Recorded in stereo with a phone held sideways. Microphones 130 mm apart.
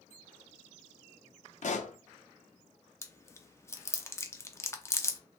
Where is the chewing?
20° left (ahead or behind), 0.6 m.